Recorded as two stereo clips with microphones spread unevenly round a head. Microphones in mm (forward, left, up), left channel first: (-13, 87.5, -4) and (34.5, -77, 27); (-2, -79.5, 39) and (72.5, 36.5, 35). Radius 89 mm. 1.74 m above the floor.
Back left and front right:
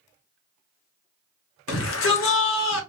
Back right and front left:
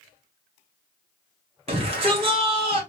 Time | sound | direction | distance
1.7 | a shout | 115° left | 1.1 m